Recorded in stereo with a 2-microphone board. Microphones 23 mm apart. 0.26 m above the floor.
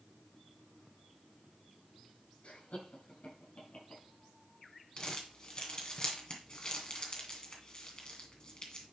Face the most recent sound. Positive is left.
turn(degrees=35)  # may be behind; listen again after turning